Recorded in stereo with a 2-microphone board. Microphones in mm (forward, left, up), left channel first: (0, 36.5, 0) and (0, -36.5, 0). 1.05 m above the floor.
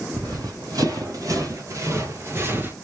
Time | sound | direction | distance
0.1 | running footsteps | 60° right (ahead or behind) | 2 m